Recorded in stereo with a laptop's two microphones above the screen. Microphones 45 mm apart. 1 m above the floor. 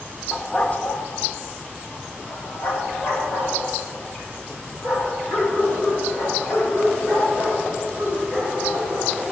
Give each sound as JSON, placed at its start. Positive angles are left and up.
{"t": 0.3, "sound": "a dog barking", "side_deg": 20, "distance_m": 0.6}